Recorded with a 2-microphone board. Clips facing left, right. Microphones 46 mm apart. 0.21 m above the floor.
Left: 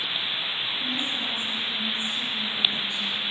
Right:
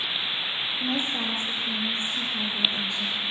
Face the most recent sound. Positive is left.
turn(degrees=-75)  # may be behind; listen again after turning